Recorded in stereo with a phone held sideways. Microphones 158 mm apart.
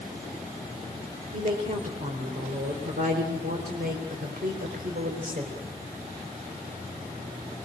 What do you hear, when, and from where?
1.3 s a woman speaking: 60° right (ahead or behind), 3.5 m